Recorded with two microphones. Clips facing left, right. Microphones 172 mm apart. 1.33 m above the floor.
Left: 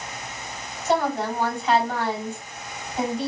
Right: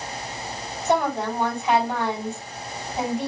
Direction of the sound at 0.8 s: 20° right (ahead or behind).